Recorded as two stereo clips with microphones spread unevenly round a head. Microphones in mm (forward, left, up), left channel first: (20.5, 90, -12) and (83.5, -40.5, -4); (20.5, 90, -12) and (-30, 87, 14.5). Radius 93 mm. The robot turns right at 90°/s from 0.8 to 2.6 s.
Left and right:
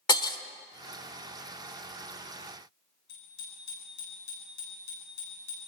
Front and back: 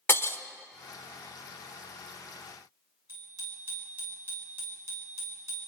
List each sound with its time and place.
0.1 s breaking glass: 60° left, 1.1 m
3.1 s a bicycle bell: 135° left, 9 m